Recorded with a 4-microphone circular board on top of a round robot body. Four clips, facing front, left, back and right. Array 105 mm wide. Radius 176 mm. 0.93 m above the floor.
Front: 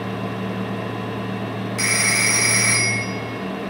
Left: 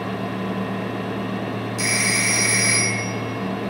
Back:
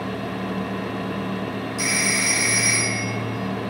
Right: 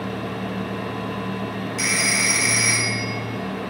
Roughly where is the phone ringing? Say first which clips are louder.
Even, front 2 dB; ahead.